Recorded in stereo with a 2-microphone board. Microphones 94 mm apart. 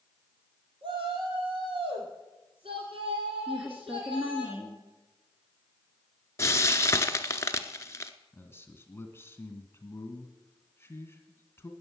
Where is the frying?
30° left (ahead or behind), 0.8 m.